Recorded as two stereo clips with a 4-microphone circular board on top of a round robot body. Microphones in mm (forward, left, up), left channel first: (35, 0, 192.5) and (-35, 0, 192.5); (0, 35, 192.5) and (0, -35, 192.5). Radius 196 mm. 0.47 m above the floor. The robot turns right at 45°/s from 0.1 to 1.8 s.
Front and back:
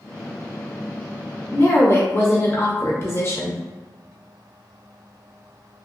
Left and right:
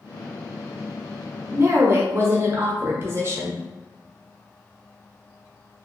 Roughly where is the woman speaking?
Ahead right.